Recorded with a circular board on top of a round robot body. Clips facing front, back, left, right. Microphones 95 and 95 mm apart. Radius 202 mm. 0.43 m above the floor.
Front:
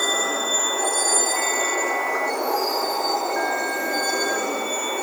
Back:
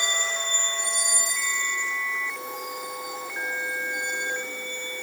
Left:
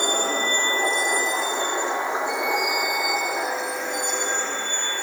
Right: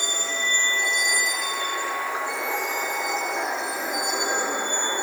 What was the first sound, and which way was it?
A vehicle, 50° left.